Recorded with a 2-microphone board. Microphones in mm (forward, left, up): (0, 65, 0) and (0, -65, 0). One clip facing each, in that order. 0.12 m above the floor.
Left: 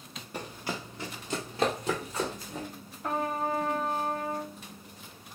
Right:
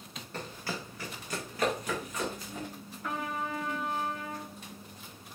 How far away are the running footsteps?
About 0.8 m.